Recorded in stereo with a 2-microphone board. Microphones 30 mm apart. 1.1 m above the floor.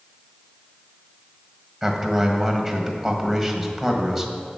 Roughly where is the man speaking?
Centre.